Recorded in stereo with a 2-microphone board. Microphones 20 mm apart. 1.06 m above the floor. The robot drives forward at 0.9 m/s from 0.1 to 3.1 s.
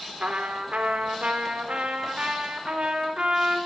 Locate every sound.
0.2 s a trumpet: 80° right, 4 m; by 3.6 s 50° right (ahead or behind), 5 m